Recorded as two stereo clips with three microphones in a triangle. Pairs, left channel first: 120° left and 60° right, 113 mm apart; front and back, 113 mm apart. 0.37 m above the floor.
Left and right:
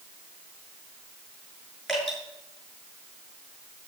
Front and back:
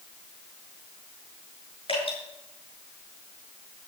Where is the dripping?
30° left, 6.5 m.